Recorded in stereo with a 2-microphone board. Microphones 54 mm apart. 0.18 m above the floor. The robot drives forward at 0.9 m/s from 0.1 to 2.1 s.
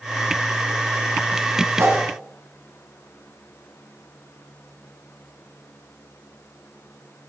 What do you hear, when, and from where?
1.8 s a whoosh: 55° right (ahead or behind), 2 m